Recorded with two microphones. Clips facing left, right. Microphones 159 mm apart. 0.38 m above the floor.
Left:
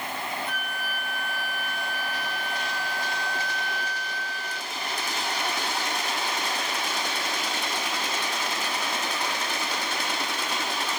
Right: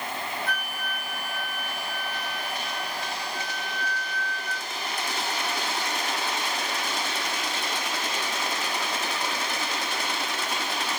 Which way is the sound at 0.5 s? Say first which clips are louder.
Even; 70° right (ahead or behind).